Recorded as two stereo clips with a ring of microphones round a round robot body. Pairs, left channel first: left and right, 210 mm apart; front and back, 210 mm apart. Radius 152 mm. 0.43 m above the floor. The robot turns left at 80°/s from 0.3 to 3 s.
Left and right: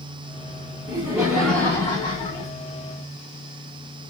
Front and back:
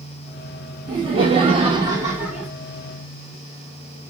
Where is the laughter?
140° right, 0.8 m; by 2.5 s 90° left, 0.8 m.